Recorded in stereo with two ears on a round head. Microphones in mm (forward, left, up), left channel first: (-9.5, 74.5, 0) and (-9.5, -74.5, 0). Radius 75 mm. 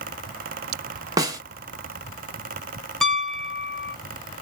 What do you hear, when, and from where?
1.2 s a snare drum: 20° right (ahead or behind), 0.8 m
3.0 s a piano: centre (ahead or behind), 0.6 m